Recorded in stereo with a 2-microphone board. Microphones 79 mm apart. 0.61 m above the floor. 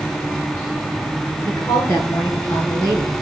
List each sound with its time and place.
1.4 s a woman speaking: 40° left (ahead or behind), 8.5 m